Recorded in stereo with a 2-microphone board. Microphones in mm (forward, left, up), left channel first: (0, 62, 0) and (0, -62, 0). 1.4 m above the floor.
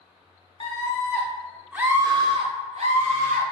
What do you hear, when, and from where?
0.6 s a scream: 35° left (ahead or behind), 0.8 m; by 3.4 s 75° right (ahead or behind), 0.9 m